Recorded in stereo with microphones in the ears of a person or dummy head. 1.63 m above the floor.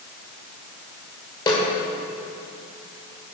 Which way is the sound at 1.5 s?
20° left (ahead or behind).